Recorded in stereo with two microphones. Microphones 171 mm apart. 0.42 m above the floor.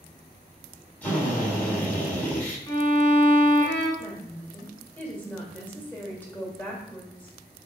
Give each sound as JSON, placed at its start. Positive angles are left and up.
{"t": 1.0, "sound": "a drill", "side_deg": 10, "distance_m": 1.7}
{"t": 2.7, "sound": "a violin", "side_deg": 25, "distance_m": 2.5}
{"t": 4.0, "sound": "a woman speaking", "side_deg": 10, "distance_m": 1.5}